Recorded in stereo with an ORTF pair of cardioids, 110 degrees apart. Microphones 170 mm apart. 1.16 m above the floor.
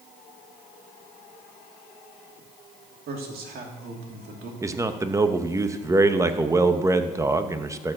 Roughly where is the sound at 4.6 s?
Ahead.